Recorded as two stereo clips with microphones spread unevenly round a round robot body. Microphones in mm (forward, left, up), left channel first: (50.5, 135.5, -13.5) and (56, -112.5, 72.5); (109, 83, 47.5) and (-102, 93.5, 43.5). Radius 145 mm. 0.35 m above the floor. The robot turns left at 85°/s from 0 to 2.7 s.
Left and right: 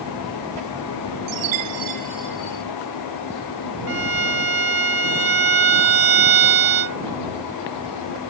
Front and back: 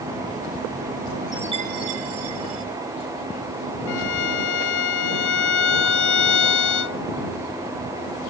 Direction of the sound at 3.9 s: 50° right.